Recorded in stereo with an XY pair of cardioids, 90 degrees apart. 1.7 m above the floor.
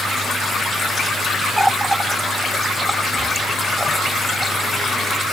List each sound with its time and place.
1.6 s a running tap: 10° right